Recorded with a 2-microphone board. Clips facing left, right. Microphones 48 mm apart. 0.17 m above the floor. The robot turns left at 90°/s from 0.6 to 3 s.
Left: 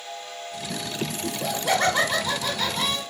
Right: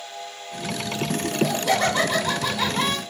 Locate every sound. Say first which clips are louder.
1.2 s laughter: right 3 dB; 25° left (ahead or behind), 1.1 m; by 3.0 s 25° right (ahead or behind), 1.1 m